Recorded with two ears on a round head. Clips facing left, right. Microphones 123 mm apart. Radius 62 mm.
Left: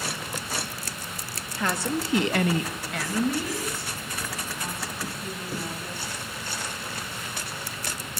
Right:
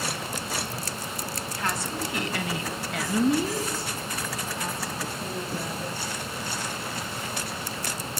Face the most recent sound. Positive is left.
turn(degrees=-45)  # may be behind; listen again after turning